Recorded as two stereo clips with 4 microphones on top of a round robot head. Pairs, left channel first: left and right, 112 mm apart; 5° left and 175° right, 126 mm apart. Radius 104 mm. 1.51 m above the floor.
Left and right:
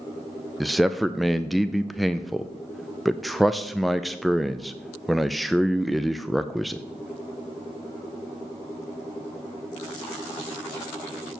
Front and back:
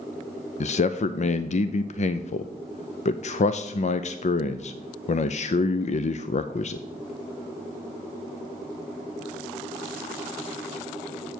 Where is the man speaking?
Straight ahead, 0.5 m.